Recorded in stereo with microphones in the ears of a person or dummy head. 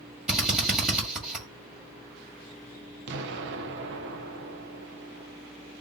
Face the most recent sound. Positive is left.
turn(degrees=-65)  # may be behind; listen again after turning